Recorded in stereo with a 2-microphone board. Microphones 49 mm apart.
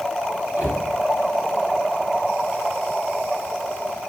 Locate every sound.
0.6 s a cupboard door: 50° right (ahead or behind), 1.0 m